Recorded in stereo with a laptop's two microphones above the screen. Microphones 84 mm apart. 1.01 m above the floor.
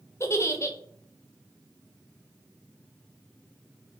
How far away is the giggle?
About 0.6 m.